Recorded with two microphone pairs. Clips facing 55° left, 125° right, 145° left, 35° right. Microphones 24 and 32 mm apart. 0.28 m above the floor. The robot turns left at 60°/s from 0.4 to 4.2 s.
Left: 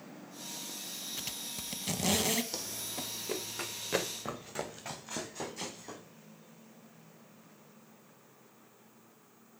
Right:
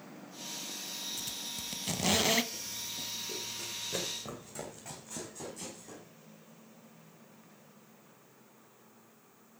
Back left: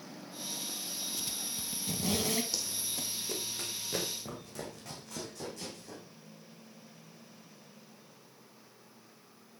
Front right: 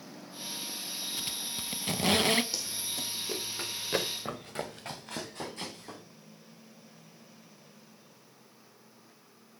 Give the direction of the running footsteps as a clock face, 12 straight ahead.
10 o'clock.